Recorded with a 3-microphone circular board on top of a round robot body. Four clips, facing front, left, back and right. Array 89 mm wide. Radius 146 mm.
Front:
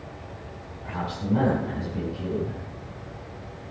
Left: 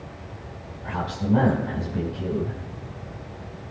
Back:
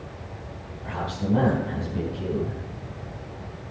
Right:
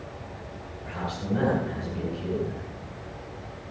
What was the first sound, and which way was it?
A man speaking, 110° left.